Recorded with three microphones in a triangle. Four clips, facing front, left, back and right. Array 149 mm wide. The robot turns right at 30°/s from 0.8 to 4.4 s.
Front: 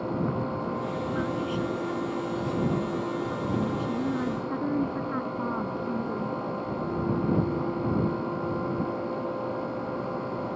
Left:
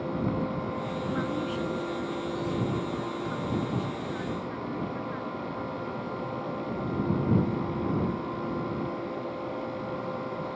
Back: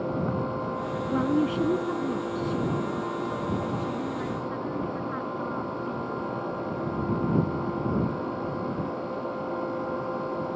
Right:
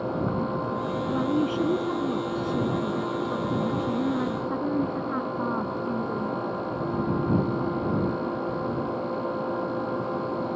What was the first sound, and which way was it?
A woman speaking, 155° right.